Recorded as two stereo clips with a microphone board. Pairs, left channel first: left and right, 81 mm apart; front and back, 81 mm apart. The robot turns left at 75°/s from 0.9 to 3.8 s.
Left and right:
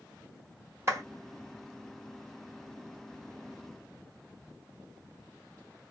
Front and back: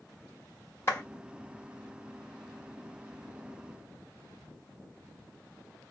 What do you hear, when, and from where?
0.9 s a clap: 45° right, 1.5 m; by 1.0 s 55° right, 1.5 m